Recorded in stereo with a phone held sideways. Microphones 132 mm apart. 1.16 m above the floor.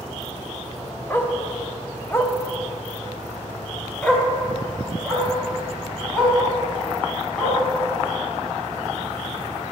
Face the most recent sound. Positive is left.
turn(degrees=5)  # may be behind; listen again after turning